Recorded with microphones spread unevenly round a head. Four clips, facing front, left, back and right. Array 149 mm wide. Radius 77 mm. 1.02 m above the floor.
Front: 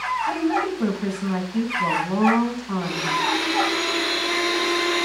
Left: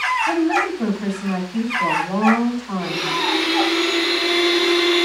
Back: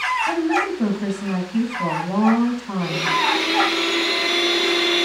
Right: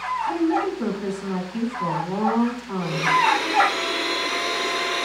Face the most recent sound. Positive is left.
turn(degrees=135)